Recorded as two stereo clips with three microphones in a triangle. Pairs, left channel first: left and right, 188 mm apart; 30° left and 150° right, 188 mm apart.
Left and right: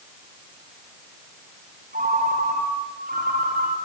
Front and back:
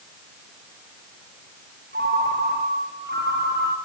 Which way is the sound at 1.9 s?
130° right.